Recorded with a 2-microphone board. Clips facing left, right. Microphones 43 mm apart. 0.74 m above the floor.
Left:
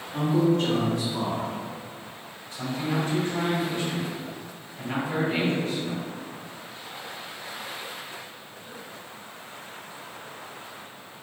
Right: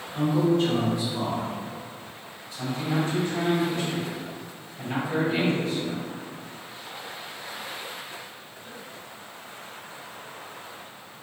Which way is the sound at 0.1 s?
55° left (ahead or behind).